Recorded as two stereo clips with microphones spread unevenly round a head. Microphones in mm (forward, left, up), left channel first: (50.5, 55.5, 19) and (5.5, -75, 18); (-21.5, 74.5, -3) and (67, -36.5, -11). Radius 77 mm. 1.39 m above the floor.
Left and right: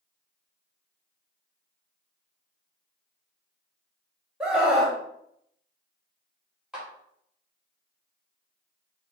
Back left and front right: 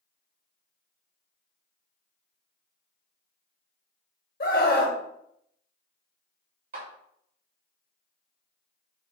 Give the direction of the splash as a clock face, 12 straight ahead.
No splash in this recording.